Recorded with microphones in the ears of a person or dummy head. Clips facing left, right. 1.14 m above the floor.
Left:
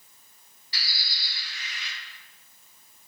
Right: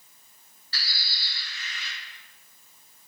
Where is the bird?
15° left (ahead or behind), 3 m.